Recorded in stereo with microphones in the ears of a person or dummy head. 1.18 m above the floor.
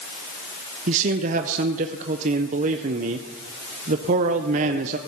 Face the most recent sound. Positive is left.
turn(degrees=-40)  # may be behind; listen again after turning